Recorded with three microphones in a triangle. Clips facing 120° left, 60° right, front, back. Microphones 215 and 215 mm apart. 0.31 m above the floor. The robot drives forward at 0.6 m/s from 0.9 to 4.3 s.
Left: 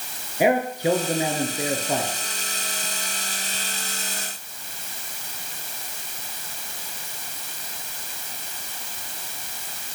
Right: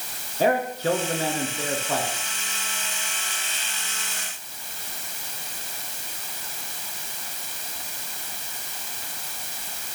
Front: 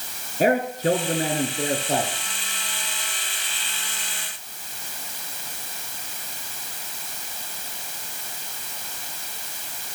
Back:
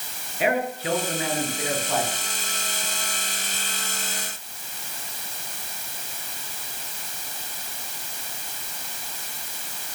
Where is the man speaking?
45° left, 4 m; by 2.1 s 55° left, 3.5 m.